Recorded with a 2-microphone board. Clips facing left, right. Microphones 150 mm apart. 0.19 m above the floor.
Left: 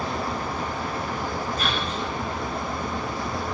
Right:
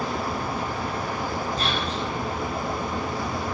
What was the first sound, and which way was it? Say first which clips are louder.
Whispering: right 1 dB; 30° right (ahead or behind).